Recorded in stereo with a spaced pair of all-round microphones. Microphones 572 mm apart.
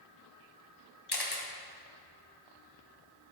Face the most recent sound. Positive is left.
turn(degrees=45)  # may be behind; listen again after turning